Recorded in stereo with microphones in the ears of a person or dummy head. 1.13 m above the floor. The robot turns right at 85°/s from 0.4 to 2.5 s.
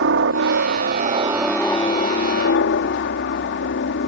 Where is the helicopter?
105° right; by 4.1 s 75° left.